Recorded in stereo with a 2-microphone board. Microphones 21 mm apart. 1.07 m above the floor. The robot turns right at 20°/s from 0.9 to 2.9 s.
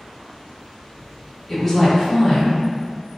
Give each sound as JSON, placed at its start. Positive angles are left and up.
{"t": 1.5, "sound": "a woman speaking", "side_deg": 5, "distance_m": 1.1}